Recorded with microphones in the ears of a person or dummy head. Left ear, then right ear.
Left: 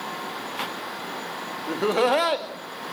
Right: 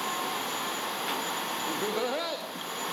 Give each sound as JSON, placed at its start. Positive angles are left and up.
{"t": 1.7, "sound": "laughter", "side_deg": 30, "distance_m": 2.0}